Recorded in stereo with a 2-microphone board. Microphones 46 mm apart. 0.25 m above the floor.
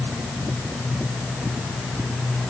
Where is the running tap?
I don't hear a running tap.